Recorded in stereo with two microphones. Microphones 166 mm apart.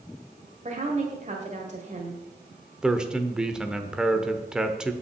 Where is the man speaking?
5° right (ahead or behind), 0.8 m.